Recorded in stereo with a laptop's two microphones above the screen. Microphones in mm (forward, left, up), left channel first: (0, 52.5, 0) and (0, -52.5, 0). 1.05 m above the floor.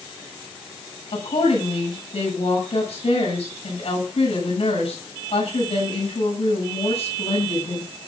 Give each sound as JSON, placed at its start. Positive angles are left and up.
{"t": 1.1, "sound": "a woman speaking", "side_deg": 80, "distance_m": 8.0}